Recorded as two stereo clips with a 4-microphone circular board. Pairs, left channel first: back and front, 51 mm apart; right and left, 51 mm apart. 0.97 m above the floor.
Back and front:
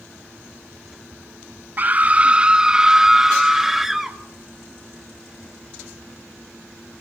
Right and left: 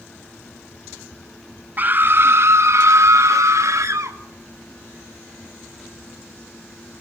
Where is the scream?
45° left, 0.9 m; by 4.2 s 85° left, 2.5 m.